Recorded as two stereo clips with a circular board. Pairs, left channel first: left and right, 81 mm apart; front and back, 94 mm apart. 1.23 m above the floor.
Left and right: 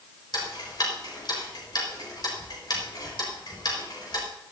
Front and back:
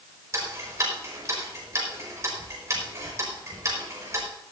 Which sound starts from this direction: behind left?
Ticking, at 0.3 s.